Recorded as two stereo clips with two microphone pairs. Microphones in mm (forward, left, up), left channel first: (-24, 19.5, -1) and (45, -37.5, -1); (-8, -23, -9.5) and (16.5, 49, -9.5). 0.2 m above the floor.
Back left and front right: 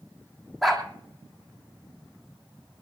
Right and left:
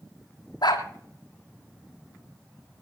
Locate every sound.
0.6 s a dog barking: 130° right, 2.5 m